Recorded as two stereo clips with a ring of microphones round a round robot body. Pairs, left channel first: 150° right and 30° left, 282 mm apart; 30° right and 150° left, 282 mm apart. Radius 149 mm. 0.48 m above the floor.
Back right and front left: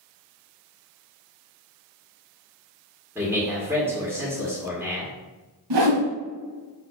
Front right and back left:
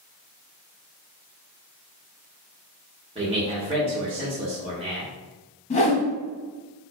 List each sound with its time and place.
3.1 s a man speaking: 105° left, 1.3 m
5.7 s a whoosh: 40° left, 0.9 m